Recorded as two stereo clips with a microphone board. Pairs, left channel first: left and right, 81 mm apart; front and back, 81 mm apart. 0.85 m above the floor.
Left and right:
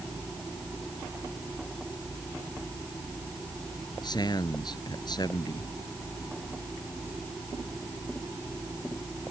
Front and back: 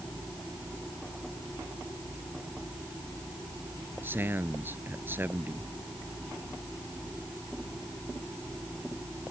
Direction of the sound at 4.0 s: 120° left.